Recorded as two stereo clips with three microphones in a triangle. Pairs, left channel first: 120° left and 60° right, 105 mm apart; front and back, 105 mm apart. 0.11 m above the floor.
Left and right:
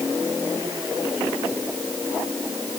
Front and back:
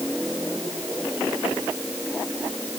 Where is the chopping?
No chopping in this recording.